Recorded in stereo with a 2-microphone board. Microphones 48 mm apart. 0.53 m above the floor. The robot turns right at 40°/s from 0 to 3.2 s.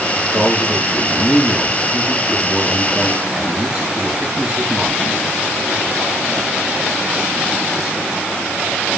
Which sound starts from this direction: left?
A man speaking, at 0.3 s.